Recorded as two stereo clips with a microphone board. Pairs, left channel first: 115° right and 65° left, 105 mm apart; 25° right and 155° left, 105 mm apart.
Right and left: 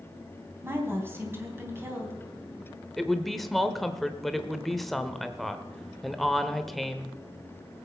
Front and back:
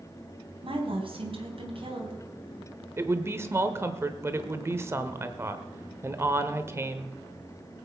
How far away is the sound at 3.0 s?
About 1.0 m.